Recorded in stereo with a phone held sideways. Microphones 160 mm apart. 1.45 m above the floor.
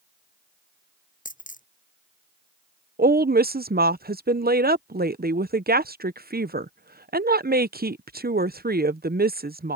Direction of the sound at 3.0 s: 75° right (ahead or behind).